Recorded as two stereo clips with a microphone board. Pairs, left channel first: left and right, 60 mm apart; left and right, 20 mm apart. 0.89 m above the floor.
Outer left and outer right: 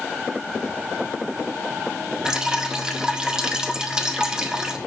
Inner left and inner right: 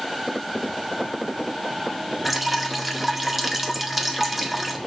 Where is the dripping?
10° right (ahead or behind), 1.5 m.